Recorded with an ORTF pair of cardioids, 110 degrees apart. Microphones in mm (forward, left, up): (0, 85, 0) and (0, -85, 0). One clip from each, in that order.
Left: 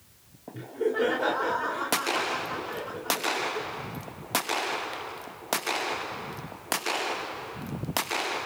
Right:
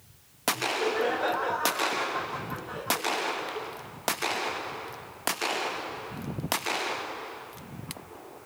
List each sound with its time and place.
0.5 s laughter: 20° left, 3 m